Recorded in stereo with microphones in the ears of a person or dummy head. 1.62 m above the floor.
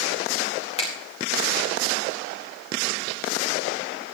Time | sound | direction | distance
0.8 | a finger snap | 35° left (ahead or behind) | 2 m